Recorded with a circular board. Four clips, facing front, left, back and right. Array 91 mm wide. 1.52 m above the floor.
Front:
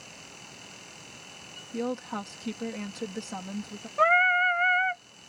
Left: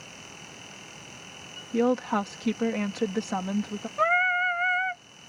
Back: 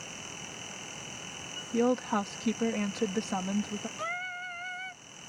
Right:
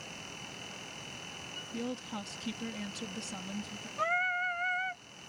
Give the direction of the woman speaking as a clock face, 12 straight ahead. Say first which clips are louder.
Left 15 dB, back 5 dB; 8 o'clock.